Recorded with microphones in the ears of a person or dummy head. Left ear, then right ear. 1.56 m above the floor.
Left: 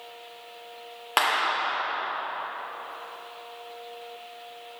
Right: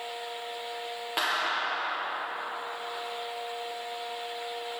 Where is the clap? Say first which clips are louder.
Left 5 dB; 35° left (ahead or behind), 0.6 m.